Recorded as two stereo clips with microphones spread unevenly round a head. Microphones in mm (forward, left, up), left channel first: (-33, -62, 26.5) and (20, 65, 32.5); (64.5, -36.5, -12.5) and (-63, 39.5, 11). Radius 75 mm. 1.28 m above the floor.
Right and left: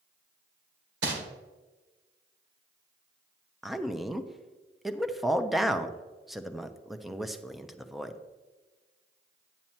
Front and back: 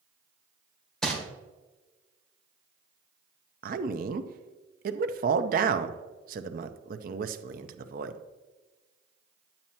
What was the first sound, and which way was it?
Crumpling, 60° left.